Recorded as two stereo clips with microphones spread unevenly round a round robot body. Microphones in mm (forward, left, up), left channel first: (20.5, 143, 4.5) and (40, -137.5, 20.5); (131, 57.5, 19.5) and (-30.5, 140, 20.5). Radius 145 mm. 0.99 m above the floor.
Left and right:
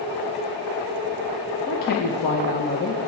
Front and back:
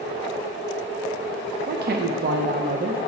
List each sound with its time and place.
1.7 s a man speaking: 145° left, 0.6 m